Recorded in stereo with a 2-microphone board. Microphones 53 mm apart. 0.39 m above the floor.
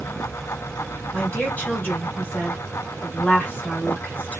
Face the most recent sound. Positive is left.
turn(degrees=35)  # may be behind; listen again after turning